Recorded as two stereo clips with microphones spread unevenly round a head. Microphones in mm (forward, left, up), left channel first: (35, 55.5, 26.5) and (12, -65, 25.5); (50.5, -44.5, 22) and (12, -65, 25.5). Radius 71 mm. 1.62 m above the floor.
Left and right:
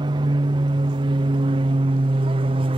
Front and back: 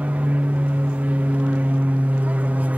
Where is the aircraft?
120° right; by 2.8 s 110° right.